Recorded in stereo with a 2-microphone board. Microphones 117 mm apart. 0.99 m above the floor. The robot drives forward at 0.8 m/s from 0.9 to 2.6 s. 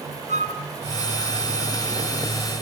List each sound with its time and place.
0.3 s a flute: 75° right (ahead or behind), 2 m